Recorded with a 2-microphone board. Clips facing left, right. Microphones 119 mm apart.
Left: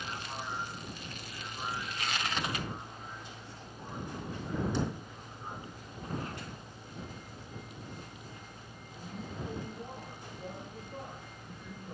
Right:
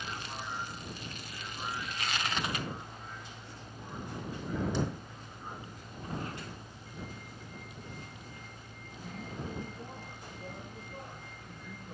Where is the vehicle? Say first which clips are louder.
Left 1 dB; 10° left (ahead or behind).